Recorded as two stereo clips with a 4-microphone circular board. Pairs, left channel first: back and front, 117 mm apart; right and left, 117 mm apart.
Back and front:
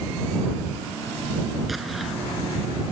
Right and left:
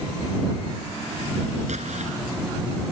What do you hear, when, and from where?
1.7 s an explosion: 90° left